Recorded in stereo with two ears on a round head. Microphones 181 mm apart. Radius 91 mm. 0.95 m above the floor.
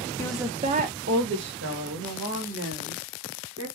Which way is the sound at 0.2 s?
15° left (ahead or behind).